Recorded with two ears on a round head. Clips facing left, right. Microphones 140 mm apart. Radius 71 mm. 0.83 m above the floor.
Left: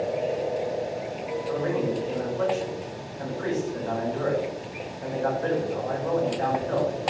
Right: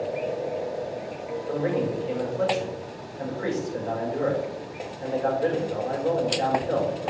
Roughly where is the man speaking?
Right.